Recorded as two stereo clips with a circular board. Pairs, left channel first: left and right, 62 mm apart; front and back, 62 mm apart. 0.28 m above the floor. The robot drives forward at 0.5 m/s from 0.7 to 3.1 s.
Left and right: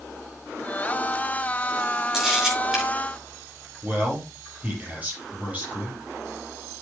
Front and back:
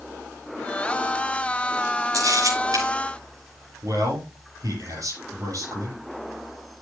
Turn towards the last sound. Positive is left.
turn(degrees=-155)